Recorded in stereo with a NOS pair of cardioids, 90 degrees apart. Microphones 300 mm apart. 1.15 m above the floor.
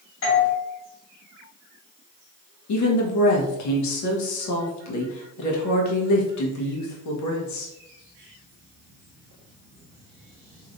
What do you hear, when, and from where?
0.2 s a doorbell: 45° left, 1.3 m
2.7 s a woman speaking: 70° left, 1.2 m